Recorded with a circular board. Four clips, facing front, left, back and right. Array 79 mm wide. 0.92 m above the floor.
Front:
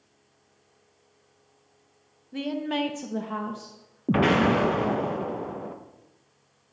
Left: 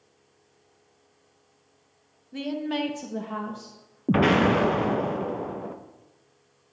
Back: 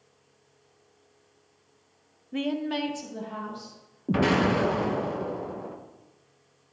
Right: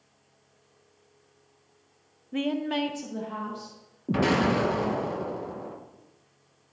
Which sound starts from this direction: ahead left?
An explosion, at 4.1 s.